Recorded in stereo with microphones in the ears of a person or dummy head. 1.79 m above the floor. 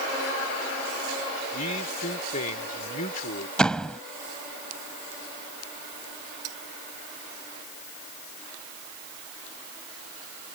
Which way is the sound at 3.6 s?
5° left (ahead or behind).